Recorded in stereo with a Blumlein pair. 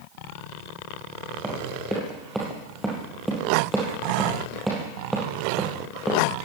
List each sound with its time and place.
1.4 s running footsteps: 10° right, 5.5 m